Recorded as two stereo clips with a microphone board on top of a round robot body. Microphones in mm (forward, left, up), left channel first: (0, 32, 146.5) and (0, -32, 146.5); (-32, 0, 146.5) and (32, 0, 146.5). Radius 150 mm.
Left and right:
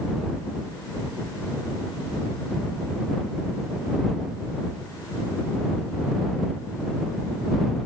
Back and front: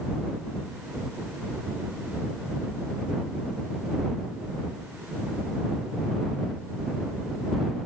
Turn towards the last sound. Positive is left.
No sound to turn to.